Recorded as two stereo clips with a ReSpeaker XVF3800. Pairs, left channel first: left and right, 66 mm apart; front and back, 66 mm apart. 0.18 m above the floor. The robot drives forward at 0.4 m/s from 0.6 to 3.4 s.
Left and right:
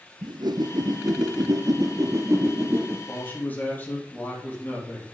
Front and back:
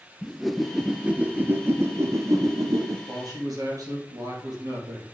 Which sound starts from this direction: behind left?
A man speaking, at 3.1 s.